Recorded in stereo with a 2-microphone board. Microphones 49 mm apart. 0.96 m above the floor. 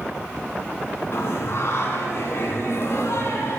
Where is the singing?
60° left (ahead or behind), 1.7 m.